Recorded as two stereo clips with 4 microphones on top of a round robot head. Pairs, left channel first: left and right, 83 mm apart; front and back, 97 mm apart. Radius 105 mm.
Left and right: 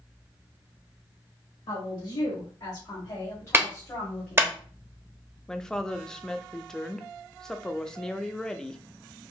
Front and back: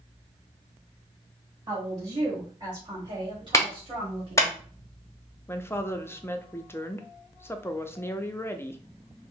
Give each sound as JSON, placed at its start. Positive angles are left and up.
{"t": 1.7, "sound": "a woman speaking", "azimuth_deg": 130, "distance_m": 2.0}
{"t": 3.5, "sound": "a clap", "azimuth_deg": -40, "distance_m": 1.0}
{"t": 5.5, "sound": "a woman speaking", "azimuth_deg": 15, "distance_m": 0.6}